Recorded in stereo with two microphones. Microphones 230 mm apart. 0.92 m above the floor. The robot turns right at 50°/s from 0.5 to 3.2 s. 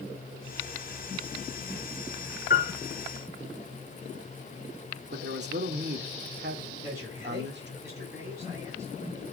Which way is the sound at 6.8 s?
10° right (ahead or behind).